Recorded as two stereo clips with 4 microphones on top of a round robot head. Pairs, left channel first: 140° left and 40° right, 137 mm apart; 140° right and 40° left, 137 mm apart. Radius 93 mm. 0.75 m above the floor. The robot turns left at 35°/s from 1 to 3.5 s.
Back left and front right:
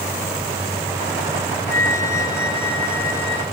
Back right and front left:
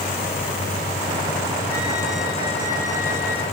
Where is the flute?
60° right, 8 m; by 3.4 s 120° right, 8 m.